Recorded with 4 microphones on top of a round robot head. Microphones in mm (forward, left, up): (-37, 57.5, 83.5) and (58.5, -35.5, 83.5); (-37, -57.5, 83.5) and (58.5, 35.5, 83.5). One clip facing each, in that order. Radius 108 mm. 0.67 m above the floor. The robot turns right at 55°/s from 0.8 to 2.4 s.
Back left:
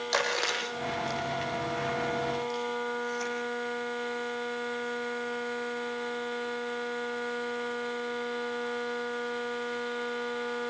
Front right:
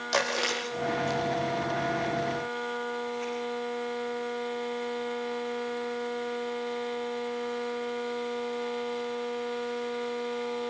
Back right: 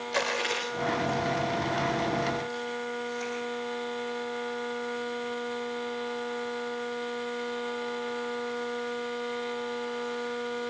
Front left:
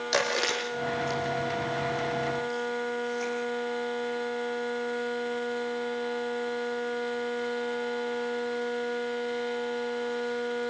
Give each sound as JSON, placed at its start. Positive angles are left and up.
{"t": 0.1, "sound": "chewing", "azimuth_deg": 40, "distance_m": 7.5}